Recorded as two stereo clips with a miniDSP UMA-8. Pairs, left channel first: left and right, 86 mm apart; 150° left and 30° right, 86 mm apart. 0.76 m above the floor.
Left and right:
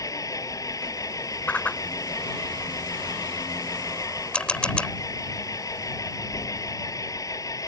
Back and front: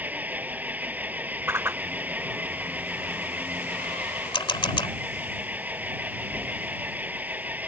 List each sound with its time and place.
0.0 s an engine running: 40° left
1.5 s a whoosh: 25° left
4.3 s a camera shutter: 170° left